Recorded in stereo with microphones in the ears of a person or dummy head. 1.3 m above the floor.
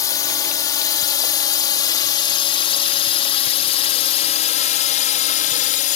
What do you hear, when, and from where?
0.0 s a drone: 20° left (ahead or behind); by 6.0 s 45° left (ahead or behind)